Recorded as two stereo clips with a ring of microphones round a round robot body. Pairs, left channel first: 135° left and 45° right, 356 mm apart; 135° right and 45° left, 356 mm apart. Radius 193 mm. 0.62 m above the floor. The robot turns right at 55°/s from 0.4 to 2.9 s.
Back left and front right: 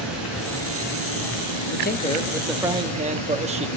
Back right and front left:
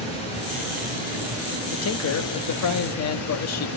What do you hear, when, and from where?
0.0 s running water: 45° left, 8 m; by 3.8 s straight behind, 8 m
1.7 s a man speaking: straight behind, 1.2 m; by 3.7 s 110° right, 1.2 m